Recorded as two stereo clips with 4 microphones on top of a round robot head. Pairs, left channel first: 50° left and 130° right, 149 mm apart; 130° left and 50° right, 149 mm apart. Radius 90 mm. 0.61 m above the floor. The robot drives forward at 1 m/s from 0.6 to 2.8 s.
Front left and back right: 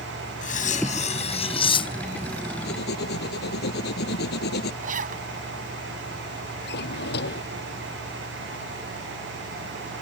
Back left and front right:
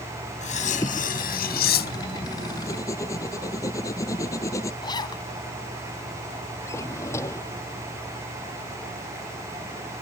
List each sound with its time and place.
0.4 s cutlery clinking: 85° left; by 2.3 s 115° left
2.6 s writing: 60° left
4.8 s a zipper: 165° right
6.7 s a drawer: 60° left